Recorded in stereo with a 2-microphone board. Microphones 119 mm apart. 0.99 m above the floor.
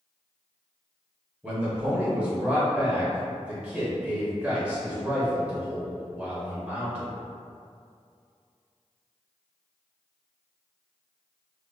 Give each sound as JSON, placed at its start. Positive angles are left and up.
{"t": 1.4, "sound": "a man speaking", "side_deg": -10, "distance_m": 0.8}